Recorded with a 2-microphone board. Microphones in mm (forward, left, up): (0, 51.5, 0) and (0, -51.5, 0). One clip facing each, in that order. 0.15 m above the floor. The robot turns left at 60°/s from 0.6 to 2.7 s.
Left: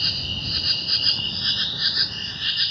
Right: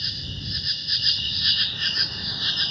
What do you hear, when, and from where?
0.0 s an insect: 90° left; by 2.7 s 35° right